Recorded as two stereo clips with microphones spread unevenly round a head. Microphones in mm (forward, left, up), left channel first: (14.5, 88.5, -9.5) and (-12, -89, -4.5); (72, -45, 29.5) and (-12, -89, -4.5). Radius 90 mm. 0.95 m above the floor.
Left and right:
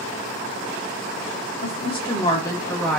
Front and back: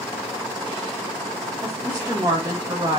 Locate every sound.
1.6 s a woman speaking: 135° left, 1.5 m; by 3.0 s 170° left, 1.2 m